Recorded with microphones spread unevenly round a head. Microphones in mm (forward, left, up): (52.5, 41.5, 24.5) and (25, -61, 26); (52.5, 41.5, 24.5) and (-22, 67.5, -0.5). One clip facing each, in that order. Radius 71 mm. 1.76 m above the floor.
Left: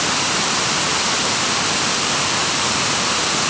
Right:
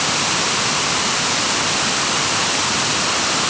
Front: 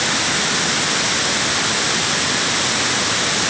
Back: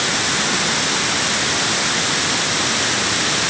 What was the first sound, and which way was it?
Only background noise.